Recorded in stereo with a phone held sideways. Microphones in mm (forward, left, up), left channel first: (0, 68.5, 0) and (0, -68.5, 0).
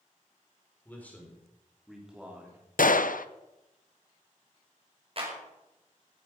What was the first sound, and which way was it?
A man speaking, 15° left (ahead or behind).